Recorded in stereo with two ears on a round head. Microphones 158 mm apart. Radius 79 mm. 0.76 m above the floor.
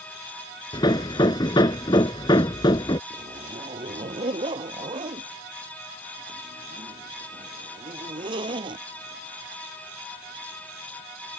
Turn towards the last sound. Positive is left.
turn(degrees=-30)  # may be behind; listen again after turning